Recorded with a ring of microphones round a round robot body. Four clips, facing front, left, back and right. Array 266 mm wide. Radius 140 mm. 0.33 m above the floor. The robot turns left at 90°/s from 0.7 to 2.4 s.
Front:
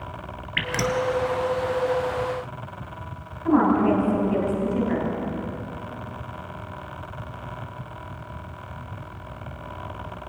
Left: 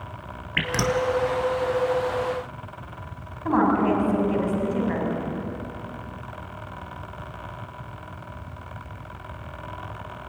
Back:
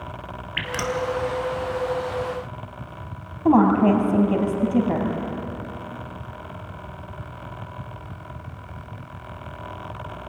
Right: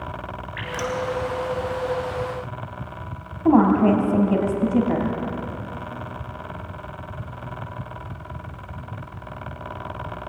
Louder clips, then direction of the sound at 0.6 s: Left 4 dB, front 2 dB; 75° left.